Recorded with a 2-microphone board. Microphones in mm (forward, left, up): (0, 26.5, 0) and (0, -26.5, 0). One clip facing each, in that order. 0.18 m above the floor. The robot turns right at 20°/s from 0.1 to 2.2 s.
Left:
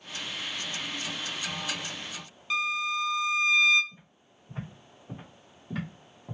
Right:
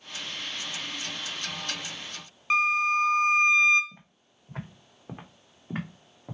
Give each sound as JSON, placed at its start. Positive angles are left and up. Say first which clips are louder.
{"t": 2.5, "sound": "a violin", "louder": "right 6 dB", "side_deg": -45, "distance_m": 0.5}
{"t": 3.9, "sound": "footsteps", "louder": "right 1 dB", "side_deg": -85, "distance_m": 1.9}